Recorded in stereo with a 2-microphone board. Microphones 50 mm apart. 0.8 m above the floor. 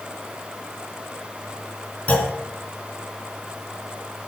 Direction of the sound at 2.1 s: 25° left (ahead or behind).